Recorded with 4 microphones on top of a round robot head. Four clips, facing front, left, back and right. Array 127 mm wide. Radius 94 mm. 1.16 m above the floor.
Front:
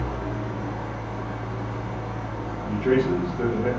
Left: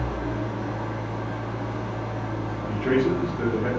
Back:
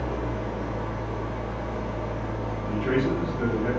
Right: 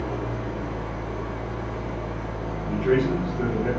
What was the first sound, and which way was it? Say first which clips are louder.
An engine running: left 1 dB, even; 80° left.